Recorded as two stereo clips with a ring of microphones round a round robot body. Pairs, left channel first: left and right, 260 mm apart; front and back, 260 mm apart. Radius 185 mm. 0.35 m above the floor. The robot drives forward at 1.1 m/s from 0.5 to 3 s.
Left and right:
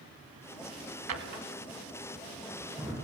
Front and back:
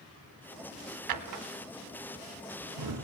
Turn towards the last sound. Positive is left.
turn(degrees=-175)